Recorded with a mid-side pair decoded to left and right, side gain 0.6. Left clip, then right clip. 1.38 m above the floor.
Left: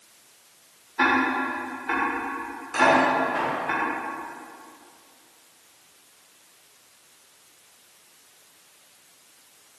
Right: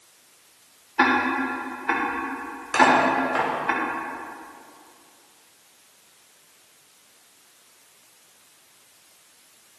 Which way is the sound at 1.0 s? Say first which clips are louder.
Right 1 dB; 35° right.